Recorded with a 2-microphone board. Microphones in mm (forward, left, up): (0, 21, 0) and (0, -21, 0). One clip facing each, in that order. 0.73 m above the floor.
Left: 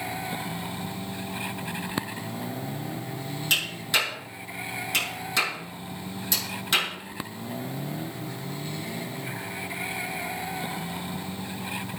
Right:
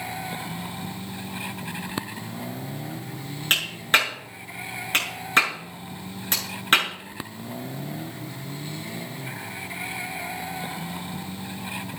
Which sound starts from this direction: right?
A clap, at 3.5 s.